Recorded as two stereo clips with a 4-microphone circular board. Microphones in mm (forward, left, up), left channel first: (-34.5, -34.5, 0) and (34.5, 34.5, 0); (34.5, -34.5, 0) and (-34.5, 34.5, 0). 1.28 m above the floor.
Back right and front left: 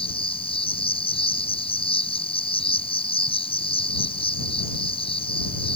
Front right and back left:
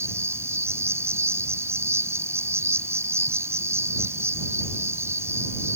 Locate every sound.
0.0 s an insect: 160° right